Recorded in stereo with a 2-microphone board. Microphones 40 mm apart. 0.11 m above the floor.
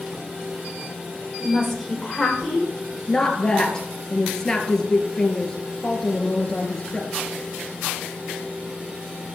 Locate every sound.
1.4 s a woman speaking: 10° right (ahead or behind), 3.5 m
3.1 s a woman speaking: 15° left (ahead or behind), 1.8 m